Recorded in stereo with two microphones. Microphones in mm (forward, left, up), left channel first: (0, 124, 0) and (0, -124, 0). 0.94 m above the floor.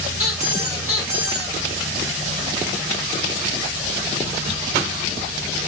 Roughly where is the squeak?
Right.